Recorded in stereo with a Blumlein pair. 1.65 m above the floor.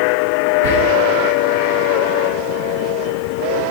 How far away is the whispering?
About 0.6 m.